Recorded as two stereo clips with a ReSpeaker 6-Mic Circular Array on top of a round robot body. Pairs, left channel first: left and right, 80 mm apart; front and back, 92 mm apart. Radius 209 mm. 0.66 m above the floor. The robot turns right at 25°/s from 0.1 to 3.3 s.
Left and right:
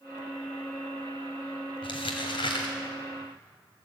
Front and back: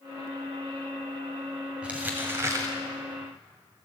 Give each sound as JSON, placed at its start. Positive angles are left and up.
{"t": 1.8, "sound": "crumpling", "azimuth_deg": 100, "distance_m": 1.3}